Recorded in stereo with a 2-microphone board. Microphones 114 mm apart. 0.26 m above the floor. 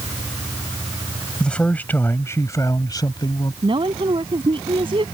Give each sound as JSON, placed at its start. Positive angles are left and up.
{"t": 1.4, "sound": "a man speaking", "side_deg": 5}
{"t": 3.6, "sound": "a woman speaking", "side_deg": -50}